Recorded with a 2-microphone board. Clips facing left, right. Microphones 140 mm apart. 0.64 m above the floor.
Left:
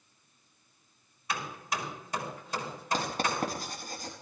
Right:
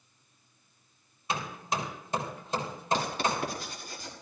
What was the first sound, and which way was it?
Hammering, 25° right (ahead or behind).